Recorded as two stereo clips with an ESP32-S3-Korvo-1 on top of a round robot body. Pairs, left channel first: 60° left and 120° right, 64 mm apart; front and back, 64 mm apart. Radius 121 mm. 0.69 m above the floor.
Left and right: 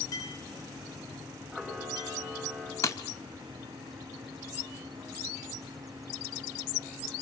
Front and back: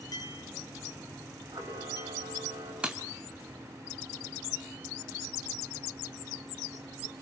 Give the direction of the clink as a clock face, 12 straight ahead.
11 o'clock.